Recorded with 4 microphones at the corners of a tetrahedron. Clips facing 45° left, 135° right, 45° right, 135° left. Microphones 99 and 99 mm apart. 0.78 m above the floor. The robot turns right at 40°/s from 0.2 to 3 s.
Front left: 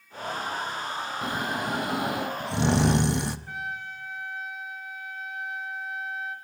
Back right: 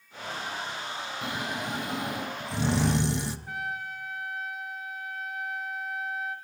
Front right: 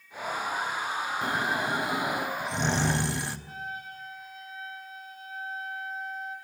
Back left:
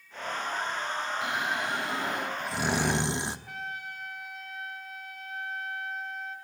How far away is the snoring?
About 1.0 m.